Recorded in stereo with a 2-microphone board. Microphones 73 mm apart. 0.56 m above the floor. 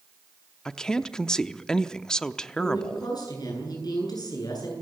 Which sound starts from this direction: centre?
A woman speaking, at 0.7 s.